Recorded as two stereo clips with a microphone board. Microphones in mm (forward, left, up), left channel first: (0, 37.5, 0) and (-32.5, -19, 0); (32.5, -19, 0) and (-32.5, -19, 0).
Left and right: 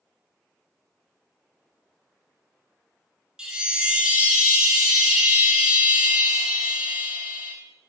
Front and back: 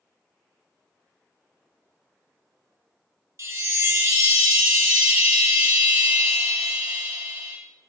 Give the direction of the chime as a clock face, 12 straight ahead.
7 o'clock.